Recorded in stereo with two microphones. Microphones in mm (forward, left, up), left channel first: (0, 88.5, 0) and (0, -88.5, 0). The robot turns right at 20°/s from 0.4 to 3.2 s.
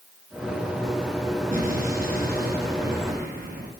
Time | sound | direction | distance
1.5 | an explosion | 115° right | 1.9 m